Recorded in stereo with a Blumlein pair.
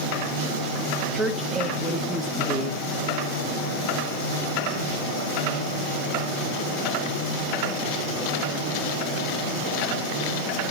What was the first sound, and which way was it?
A woman speaking, 5° left.